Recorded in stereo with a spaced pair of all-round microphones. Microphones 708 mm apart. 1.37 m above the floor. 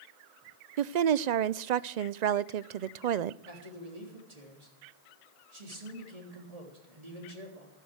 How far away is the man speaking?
About 3.5 m.